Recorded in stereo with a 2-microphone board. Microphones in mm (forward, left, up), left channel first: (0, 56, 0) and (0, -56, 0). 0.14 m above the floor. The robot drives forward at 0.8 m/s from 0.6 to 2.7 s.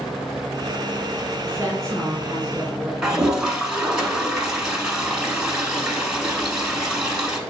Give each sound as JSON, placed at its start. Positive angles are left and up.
{"t": 1.4, "sound": "a woman speaking", "side_deg": -25, "distance_m": 1.6}
{"t": 3.0, "sound": "a toilet flushing", "side_deg": -5, "distance_m": 0.8}